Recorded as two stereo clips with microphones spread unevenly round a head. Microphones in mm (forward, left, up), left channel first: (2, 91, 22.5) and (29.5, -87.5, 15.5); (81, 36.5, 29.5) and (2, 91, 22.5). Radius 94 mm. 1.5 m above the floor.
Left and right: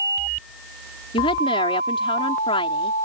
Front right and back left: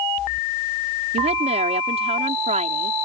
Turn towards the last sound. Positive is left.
turn(degrees=165)